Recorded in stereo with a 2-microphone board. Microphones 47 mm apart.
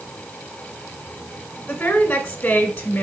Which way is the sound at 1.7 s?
25° left (ahead or behind).